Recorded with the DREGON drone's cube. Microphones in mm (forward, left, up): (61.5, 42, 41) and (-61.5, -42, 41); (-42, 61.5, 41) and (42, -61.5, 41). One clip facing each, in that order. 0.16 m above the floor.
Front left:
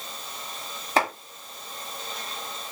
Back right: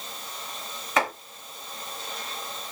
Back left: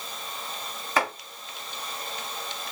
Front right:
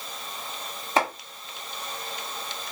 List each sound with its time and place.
1.0 s chopping: 5° right, 1.5 m